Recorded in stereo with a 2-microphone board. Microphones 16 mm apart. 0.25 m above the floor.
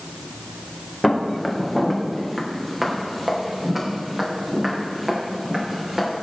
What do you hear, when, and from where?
1.0 s footsteps: 10° left (ahead or behind), 3 m; by 6.1 s 25° right (ahead or behind), 6.5 m